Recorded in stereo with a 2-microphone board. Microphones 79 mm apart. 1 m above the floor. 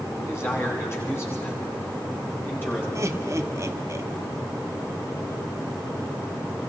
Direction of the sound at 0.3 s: 35° left (ahead or behind).